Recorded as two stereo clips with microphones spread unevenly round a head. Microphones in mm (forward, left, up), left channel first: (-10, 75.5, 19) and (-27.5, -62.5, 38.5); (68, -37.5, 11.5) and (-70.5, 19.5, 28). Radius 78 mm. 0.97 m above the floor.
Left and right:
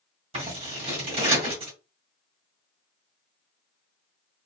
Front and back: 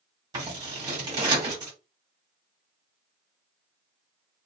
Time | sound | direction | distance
0.3 | scissors | 140° right | 1.6 m